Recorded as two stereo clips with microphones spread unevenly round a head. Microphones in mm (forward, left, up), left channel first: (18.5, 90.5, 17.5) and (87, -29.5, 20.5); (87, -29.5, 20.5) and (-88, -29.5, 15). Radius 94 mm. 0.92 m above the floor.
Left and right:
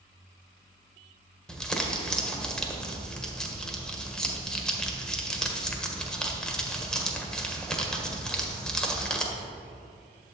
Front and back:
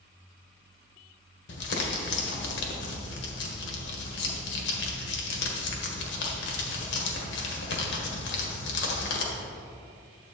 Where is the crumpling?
35° left, 1.6 m.